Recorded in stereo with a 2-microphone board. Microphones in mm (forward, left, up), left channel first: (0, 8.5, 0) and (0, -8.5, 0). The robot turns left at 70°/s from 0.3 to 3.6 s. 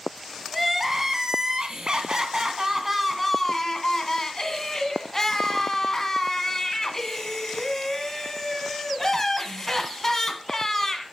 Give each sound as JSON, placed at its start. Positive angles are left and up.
{"t": 0.5, "sound": "crying", "azimuth_deg": 5, "distance_m": 1.5}